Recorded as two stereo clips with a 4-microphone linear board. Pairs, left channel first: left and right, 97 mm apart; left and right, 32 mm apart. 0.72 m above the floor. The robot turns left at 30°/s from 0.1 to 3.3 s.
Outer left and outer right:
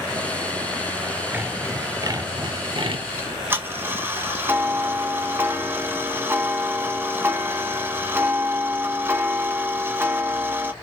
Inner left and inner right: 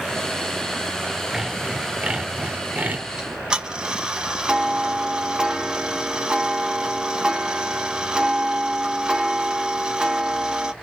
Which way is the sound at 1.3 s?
25° right.